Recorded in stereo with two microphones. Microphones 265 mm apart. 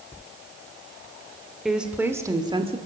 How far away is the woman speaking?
About 2.5 m.